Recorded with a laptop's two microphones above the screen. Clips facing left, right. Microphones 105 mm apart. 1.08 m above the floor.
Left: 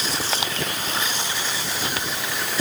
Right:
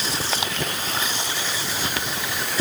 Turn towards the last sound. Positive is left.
No sound to turn to.